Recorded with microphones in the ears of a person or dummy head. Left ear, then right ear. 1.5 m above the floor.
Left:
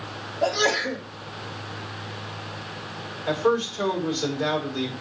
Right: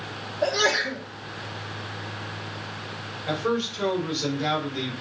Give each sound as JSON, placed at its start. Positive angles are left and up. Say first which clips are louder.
{"t": 0.4, "sound": "a sneeze", "louder": "even", "side_deg": 35, "distance_m": 4.0}
{"t": 3.3, "sound": "a man speaking", "louder": "left 4 dB", "side_deg": 35, "distance_m": 5.0}